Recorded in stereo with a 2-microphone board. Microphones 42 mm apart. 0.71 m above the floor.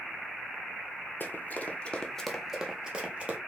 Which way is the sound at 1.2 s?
50° left (ahead or behind).